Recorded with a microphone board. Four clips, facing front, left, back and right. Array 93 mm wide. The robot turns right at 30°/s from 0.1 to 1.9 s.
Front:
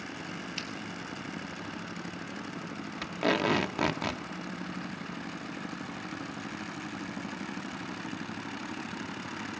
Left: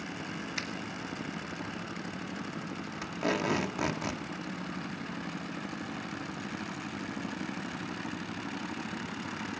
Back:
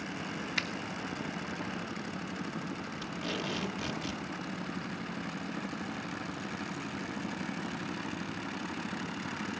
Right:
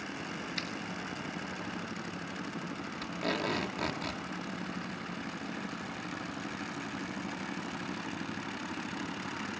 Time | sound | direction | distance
0.6 | a finger snap | 165° left | 2 m
3.0 | tape being pulled | 15° left | 1.6 m